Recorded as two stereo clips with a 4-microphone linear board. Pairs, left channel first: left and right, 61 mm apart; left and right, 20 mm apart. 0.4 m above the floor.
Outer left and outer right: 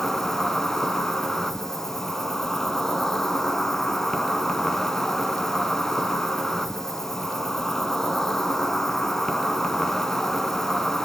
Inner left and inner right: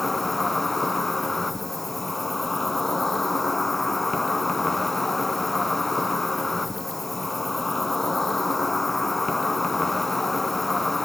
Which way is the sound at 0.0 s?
5° left (ahead or behind).